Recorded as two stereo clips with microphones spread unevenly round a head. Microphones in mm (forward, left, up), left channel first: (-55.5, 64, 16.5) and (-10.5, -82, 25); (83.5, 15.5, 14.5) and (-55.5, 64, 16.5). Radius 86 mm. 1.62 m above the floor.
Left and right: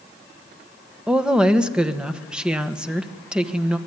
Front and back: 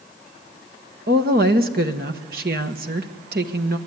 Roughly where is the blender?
I don't hear a blender.